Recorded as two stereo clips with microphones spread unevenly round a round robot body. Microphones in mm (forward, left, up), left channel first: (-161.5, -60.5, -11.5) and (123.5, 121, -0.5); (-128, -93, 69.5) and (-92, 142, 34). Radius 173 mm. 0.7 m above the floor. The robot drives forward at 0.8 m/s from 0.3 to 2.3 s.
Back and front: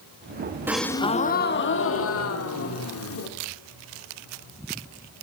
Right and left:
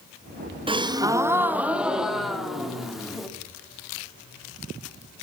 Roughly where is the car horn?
I don't hear a car horn.